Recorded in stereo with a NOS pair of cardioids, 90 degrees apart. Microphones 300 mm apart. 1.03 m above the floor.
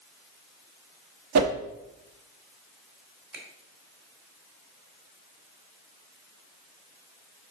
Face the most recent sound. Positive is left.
turn(degrees=-35)